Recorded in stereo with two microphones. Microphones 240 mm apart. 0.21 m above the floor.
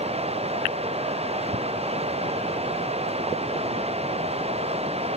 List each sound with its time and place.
0.0 s running water: 25° right (ahead or behind)